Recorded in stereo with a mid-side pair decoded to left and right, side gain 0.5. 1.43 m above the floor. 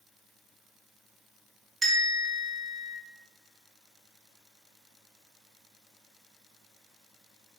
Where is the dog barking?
No dog barking in this recording.